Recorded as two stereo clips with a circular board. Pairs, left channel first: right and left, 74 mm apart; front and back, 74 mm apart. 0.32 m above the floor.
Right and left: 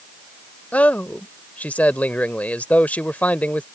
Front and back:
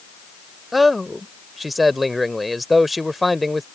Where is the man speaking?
90° right.